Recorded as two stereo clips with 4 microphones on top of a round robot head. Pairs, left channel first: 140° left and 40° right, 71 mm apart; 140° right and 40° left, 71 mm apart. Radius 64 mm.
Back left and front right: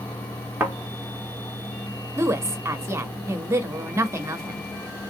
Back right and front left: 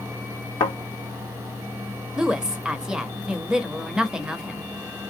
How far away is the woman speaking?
About 1.1 m.